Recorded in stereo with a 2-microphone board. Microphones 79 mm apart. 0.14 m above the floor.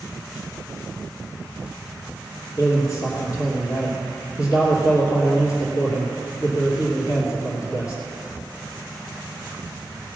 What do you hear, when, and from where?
2.6 s a man speaking: 45° left (ahead or behind), 3 m